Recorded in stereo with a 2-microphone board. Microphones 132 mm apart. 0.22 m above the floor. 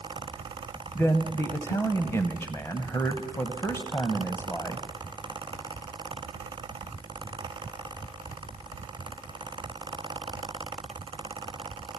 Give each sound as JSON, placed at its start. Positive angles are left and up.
{"t": 0.9, "sound": "a man speaking", "side_deg": 20, "distance_m": 1.0}